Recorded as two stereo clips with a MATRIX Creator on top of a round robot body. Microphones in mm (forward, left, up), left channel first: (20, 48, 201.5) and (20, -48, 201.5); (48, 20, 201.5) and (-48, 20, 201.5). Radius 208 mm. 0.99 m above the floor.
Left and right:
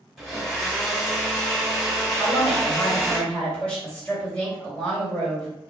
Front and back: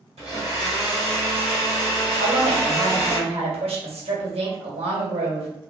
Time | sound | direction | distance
0.2 | a blender | straight behind | 1.9 m
2.2 | a woman speaking | 170° left | 2 m